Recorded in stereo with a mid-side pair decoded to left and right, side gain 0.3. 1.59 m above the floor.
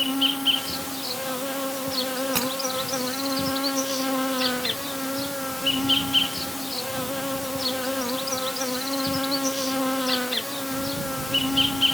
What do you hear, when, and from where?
0.0 s an insect: 15° left
2.4 s breaking glass: 35° right